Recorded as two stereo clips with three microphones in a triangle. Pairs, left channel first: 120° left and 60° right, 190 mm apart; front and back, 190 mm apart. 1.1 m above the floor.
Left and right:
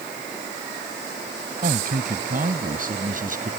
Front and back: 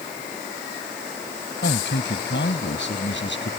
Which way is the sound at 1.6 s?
20° right.